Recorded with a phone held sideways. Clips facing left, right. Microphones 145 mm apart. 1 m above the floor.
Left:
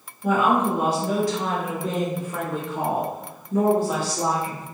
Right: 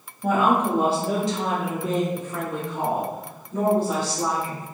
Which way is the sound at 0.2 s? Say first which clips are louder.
Even; 40° right (ahead or behind).